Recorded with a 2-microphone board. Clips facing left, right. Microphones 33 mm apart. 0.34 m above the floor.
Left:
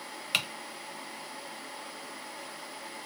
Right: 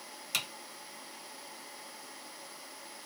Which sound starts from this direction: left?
Typing on a keyboard, at 0.3 s.